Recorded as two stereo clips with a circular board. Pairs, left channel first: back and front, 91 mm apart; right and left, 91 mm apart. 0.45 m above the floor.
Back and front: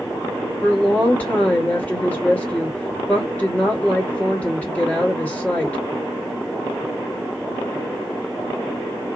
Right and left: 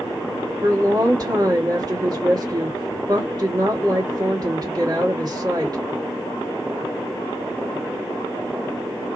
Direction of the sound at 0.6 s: 115° left.